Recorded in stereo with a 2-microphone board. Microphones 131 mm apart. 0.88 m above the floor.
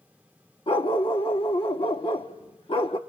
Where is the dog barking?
50° left (ahead or behind), 0.6 m.